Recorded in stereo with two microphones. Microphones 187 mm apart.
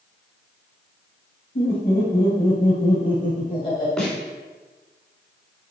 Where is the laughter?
55° left (ahead or behind), 2.0 m; by 3.9 s 25° left (ahead or behind), 1.8 m.